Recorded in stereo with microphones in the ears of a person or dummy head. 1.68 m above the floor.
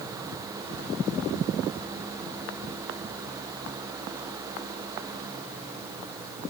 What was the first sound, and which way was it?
Only background noise.